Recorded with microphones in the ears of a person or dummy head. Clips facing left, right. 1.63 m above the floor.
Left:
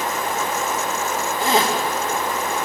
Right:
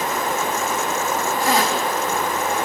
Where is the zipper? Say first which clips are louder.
Left 2 dB; 25° left (ahead or behind), 2.5 m.